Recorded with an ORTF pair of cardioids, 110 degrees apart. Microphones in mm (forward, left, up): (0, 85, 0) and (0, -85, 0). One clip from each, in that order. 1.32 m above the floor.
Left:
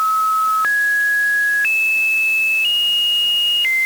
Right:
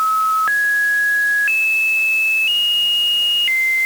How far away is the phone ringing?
I don't hear a phone ringing.